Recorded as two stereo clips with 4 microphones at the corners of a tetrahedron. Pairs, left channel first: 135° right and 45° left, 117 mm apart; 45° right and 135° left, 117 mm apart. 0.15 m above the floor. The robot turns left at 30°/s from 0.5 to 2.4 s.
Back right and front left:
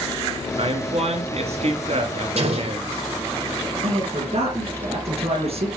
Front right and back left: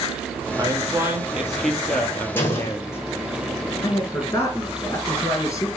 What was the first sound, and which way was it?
A man speaking, 80° left.